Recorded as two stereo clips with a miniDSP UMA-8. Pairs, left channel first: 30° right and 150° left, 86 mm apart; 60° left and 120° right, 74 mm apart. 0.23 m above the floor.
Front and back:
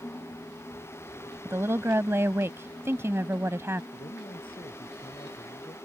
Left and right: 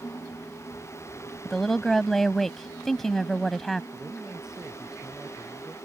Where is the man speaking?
35° right.